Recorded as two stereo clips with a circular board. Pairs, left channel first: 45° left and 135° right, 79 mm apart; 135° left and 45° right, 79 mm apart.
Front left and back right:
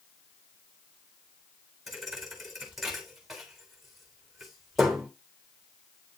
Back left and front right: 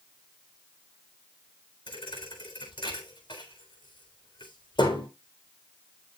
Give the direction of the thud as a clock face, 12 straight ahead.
7 o'clock.